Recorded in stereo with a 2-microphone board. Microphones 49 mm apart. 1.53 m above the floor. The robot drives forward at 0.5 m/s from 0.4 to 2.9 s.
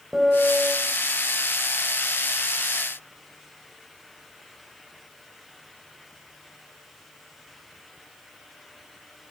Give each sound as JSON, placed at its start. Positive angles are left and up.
{"t": 0.1, "sound": "a piano", "side_deg": -10, "distance_m": 3.5}